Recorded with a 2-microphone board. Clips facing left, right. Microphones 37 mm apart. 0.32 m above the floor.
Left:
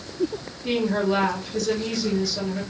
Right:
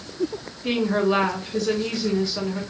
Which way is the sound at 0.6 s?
30° right (ahead or behind).